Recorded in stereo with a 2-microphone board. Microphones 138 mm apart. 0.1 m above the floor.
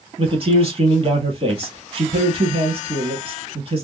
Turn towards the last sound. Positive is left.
turn(degrees=-45)  # may be behind; listen again after turning